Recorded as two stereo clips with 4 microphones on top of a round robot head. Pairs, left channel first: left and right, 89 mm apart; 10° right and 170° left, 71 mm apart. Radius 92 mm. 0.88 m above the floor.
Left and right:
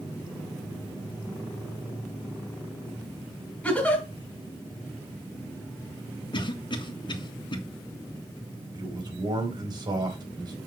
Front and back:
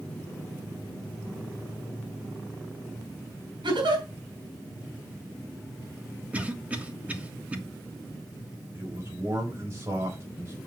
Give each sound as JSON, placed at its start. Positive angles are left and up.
{"t": 3.6, "sound": "a giggle", "azimuth_deg": 165, "distance_m": 4.5}
{"t": 6.3, "sound": "a cough", "azimuth_deg": 105, "distance_m": 1.7}
{"t": 8.7, "sound": "a man speaking", "azimuth_deg": -130, "distance_m": 4.0}